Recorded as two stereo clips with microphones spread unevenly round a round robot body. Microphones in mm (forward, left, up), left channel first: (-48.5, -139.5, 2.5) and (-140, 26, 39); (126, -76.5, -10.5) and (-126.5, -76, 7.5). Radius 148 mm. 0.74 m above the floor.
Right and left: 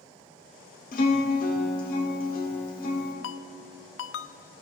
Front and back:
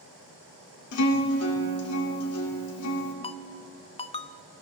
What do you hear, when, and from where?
0.9 s a guitar: 15° right, 2 m
3.2 s a ringtone: 70° right, 0.5 m